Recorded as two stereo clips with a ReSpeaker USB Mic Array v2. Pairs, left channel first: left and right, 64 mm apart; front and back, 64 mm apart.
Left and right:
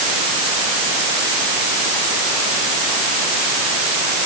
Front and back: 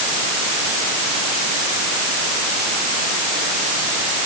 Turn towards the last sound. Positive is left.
No sound to turn to.